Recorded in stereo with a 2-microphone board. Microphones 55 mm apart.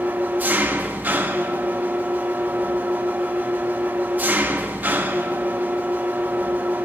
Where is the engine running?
30° right (ahead or behind), 0.8 m.